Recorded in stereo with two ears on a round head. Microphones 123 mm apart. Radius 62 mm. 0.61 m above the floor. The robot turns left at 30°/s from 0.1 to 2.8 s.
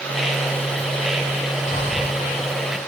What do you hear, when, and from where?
1.7 s breathing: 45° left (ahead or behind), 0.7 m; by 2.2 s 30° left (ahead or behind), 0.7 m